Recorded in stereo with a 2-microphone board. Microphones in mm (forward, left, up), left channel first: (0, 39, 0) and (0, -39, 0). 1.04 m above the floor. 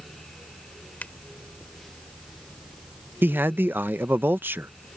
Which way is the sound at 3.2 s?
25° right (ahead or behind).